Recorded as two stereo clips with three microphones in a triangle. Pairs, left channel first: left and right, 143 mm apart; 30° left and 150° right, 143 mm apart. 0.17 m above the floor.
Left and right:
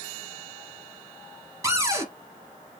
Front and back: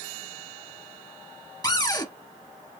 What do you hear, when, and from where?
1.6 s a cupboard door: 25° right, 0.9 m